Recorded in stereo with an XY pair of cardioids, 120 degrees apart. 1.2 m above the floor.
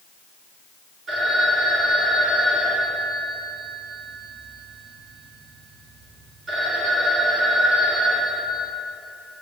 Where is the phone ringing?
50° right, 3 m.